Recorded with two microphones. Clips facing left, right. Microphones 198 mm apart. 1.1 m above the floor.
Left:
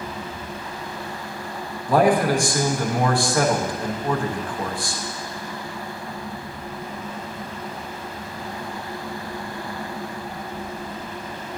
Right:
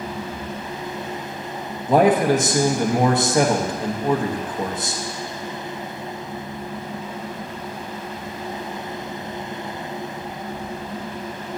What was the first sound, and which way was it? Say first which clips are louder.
A man speaking: right 2 dB; 20° right (ahead or behind).